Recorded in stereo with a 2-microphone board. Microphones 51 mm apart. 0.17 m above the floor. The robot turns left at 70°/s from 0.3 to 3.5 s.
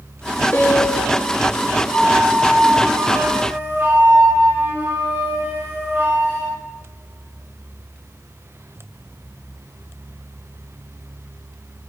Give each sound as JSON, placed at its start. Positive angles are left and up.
{"t": 0.5, "sound": "a piano", "azimuth_deg": 140, "distance_m": 0.8}
{"t": 1.9, "sound": "a flute", "azimuth_deg": 75, "distance_m": 3.5}